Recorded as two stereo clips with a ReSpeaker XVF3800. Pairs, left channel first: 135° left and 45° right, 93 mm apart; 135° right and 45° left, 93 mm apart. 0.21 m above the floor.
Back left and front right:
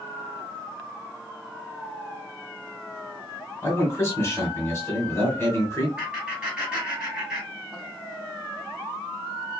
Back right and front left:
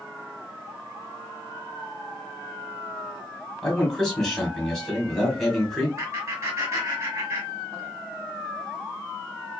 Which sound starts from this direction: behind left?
A man speaking, at 3.6 s.